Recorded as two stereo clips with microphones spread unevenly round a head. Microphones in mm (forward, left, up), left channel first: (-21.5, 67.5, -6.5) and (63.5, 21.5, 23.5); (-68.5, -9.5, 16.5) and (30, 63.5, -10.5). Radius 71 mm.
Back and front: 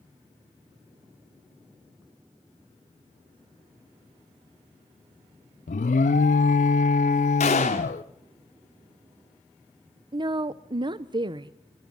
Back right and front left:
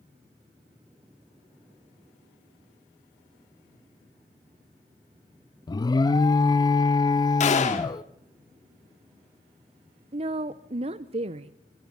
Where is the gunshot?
170° right, 2.0 m.